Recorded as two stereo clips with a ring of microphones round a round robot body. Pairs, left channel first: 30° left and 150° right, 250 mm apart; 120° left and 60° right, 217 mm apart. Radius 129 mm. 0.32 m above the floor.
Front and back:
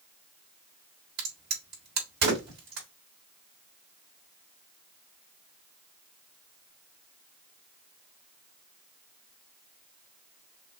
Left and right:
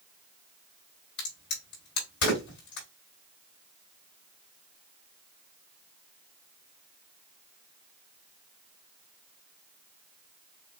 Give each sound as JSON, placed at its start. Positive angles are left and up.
{"t": 1.2, "sound": "a crack", "azimuth_deg": 160, "distance_m": 3.5}